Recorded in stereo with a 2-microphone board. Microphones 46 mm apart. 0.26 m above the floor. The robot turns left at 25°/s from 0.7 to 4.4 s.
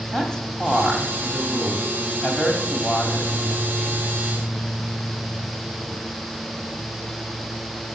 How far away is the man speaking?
About 1.4 m.